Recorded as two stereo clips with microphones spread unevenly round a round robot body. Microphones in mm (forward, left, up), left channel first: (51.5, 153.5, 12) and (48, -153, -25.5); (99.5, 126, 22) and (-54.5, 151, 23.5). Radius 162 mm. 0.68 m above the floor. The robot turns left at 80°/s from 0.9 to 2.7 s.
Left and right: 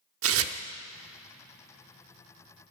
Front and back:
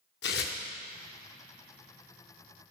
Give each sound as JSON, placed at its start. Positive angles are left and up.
{"t": 0.2, "sound": "tearing paper", "azimuth_deg": -40, "distance_m": 0.6}